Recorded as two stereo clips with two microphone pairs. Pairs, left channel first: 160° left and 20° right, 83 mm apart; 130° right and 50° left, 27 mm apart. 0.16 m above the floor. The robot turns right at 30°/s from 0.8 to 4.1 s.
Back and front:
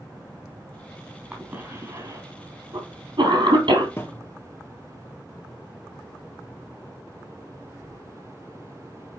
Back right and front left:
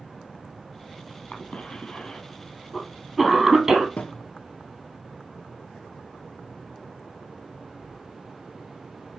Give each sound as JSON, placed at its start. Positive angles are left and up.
{"t": 1.3, "sound": "a cough", "azimuth_deg": -90, "distance_m": 3.5}
{"t": 4.0, "sound": "a thud", "azimuth_deg": -145, "distance_m": 1.5}